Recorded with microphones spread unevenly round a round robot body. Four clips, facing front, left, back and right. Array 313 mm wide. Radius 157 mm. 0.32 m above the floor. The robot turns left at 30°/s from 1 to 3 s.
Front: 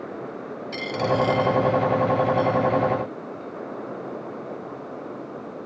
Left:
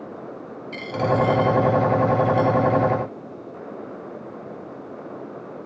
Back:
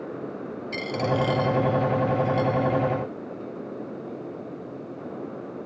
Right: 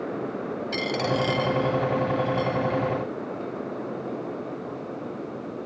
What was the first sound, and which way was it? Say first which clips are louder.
A dropped coin: left 5 dB, front 2 dB; 140° right.